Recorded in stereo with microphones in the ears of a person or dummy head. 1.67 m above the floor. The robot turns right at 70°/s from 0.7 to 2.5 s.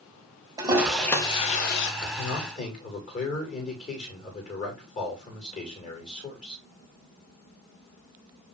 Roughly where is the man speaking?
Left.